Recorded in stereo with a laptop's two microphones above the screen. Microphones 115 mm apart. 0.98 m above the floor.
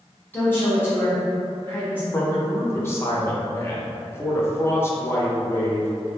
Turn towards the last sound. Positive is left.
turn(degrees=20)  # may be behind; listen again after turning